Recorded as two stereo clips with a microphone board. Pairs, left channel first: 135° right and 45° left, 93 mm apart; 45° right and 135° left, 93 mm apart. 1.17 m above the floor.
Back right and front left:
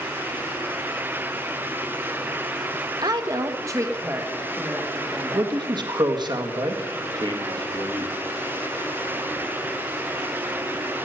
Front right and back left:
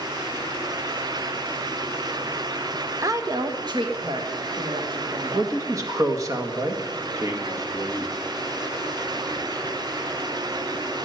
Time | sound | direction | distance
3.0 | a woman speaking | 80° left | 1.1 m
5.3 | a man speaking | 80° left | 1.8 m